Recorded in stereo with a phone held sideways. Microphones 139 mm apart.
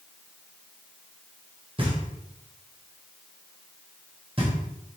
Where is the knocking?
40° right (ahead or behind), 3 m.